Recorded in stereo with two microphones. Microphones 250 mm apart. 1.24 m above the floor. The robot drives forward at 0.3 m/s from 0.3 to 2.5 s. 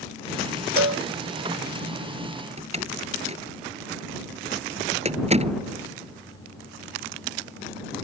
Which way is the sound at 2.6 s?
25° right (ahead or behind).